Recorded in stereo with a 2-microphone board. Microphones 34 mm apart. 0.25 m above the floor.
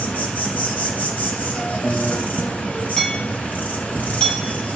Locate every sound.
0.0 s an insect: 65° left (ahead or behind), 1.8 m
1.6 s a piano: 60° left (ahead or behind), 2 m
3.0 s hammering: 35° left (ahead or behind), 4.5 m